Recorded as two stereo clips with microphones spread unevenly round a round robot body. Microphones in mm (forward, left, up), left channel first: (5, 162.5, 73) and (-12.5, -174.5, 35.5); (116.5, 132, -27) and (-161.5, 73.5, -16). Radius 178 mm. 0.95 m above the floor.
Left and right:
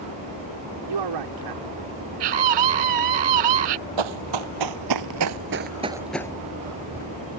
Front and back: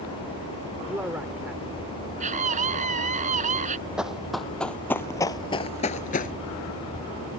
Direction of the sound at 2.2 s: 95° right.